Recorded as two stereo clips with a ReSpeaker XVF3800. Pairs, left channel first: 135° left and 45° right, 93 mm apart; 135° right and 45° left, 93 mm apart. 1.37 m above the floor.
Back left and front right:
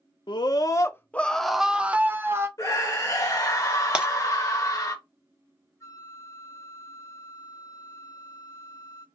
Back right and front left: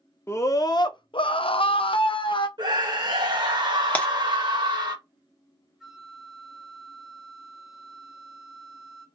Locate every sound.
0.3 s a scream: 165° left, 0.7 m; by 2.5 s 105° right, 1.0 m
2.6 s a scream: 80° left, 1.6 m
4.0 s breaking glass: 100° right, 0.9 m
5.8 s a flute: 125° left, 1.2 m